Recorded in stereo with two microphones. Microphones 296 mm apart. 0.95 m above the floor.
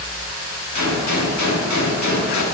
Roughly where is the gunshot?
Left.